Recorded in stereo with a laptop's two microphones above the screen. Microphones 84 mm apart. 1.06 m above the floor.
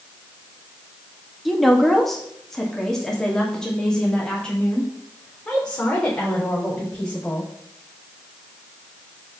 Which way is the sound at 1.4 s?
Centre (ahead or behind).